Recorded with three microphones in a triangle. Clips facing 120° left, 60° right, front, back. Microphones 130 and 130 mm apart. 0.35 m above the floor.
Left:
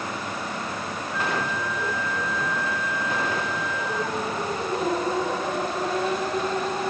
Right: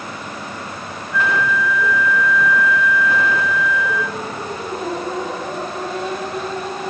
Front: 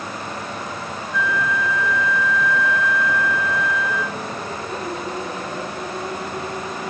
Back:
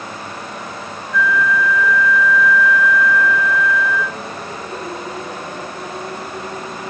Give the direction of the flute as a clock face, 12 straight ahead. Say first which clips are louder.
Right 9 dB, back 5 dB; 10 o'clock.